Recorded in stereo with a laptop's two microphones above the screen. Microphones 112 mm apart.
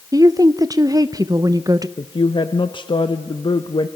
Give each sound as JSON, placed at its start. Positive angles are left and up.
{"t": 0.1, "sound": "a woman speaking", "side_deg": -30, "distance_m": 0.5}
{"t": 2.0, "sound": "a woman speaking", "side_deg": 45, "distance_m": 0.8}